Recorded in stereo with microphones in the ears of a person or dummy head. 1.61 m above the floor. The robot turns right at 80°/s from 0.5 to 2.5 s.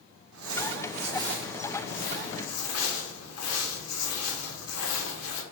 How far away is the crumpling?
About 0.8 m.